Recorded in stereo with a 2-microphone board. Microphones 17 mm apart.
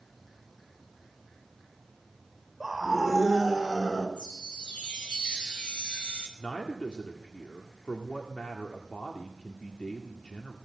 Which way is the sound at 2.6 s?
Centre (ahead or behind).